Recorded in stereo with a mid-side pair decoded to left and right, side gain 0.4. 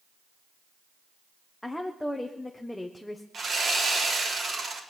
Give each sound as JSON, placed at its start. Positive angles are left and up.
{"t": 1.6, "sound": "a woman speaking", "azimuth_deg": 10, "distance_m": 1.3}
{"t": 3.3, "sound": "sawing", "azimuth_deg": -45, "distance_m": 3.5}